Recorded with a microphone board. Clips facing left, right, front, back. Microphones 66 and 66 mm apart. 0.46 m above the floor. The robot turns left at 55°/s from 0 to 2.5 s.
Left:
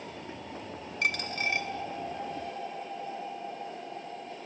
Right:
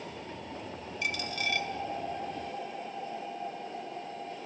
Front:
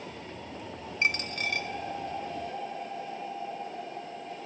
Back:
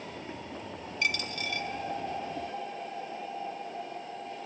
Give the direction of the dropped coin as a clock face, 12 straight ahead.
10 o'clock.